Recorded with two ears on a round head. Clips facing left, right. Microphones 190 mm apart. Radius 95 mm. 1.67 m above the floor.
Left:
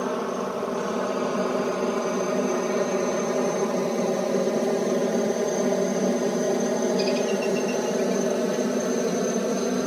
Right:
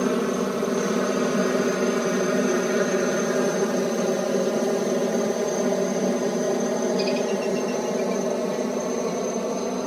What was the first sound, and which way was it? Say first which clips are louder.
A helicopter: right 4 dB; 30° right (ahead or behind).